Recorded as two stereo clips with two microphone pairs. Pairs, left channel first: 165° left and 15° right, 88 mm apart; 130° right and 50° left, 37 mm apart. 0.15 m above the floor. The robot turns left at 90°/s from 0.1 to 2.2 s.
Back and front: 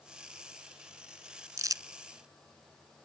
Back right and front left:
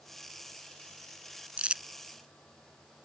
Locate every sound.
1.6 s crumpling: 20° left; by 1.8 s 5° right